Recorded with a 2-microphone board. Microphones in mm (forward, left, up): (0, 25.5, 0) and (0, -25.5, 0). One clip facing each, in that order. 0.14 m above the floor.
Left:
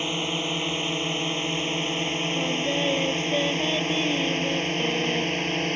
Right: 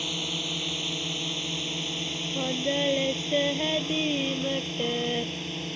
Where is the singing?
10° right (ahead or behind).